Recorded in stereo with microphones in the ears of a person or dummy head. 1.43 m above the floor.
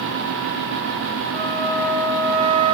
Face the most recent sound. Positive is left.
turn(degrees=-65)  # may be behind; listen again after turning